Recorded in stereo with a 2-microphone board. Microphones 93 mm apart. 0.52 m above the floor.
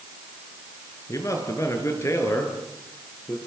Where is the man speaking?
35° left (ahead or behind), 6 m; by 3.4 s 25° left (ahead or behind), 8 m.